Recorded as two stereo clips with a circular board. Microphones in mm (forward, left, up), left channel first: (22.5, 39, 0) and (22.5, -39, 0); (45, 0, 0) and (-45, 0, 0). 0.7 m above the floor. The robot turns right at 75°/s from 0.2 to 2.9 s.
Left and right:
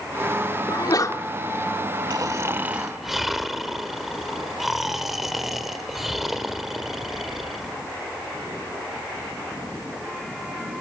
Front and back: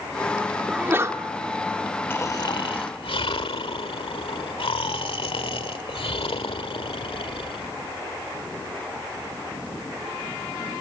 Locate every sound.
0.7 s a sneeze: 100° left, 2.0 m; by 1.2 s 135° left, 2.0 m
2.1 s snoring: 60° right, 1.5 m; by 7.7 s straight ahead, 1.5 m